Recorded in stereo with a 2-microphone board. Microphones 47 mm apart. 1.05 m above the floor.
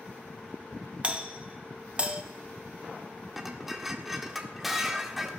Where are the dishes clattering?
5° right (ahead or behind), 1.5 m.